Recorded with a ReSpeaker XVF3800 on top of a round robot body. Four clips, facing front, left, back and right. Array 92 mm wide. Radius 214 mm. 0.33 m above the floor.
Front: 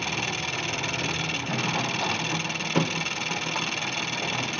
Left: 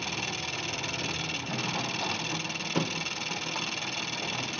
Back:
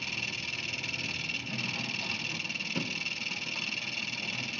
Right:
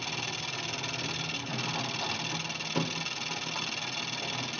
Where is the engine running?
5° left, 0.7 m.